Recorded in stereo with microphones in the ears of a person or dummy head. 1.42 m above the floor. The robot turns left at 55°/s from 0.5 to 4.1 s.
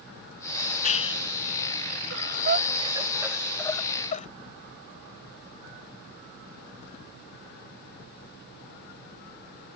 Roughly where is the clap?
Left.